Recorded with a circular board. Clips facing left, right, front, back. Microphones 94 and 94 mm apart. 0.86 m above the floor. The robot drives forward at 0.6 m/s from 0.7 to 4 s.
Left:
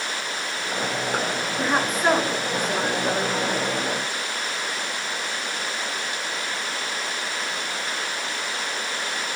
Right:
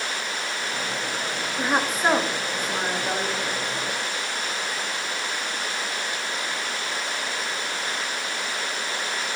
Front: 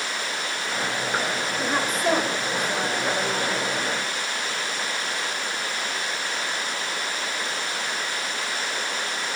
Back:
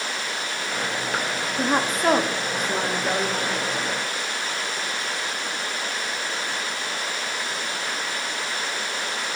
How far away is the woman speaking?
About 1.0 m.